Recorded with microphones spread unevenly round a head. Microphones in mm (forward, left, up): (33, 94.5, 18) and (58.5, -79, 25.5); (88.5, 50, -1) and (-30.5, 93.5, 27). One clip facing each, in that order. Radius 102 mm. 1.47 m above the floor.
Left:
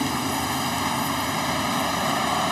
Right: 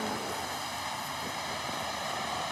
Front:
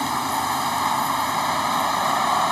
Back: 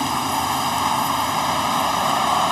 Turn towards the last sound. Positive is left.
turn(degrees=85)